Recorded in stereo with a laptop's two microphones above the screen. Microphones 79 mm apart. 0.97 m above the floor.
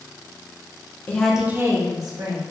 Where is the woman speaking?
25° left (ahead or behind), 0.5 m; by 2.4 s 60° right (ahead or behind), 1.2 m.